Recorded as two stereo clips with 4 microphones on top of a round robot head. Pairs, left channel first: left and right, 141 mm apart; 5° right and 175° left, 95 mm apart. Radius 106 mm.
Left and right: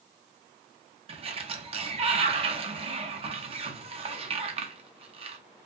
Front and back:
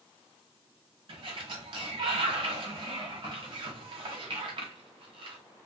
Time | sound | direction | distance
1.1 | a sliding door | 140° right | 0.7 m